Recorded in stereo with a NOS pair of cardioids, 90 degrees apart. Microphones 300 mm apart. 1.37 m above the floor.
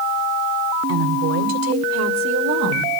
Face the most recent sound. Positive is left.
turn(degrees=-65)